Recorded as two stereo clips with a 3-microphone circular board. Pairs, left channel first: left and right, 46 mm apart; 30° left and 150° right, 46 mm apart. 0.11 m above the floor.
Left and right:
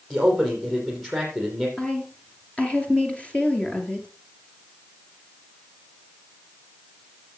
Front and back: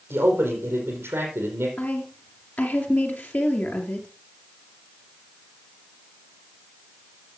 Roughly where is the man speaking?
Behind.